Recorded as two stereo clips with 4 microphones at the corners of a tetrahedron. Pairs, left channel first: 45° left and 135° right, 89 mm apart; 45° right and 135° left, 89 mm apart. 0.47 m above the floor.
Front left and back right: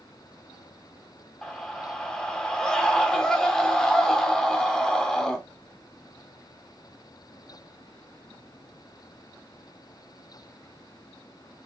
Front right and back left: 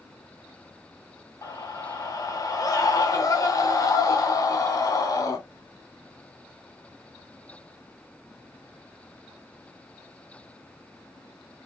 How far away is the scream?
About 1.1 m.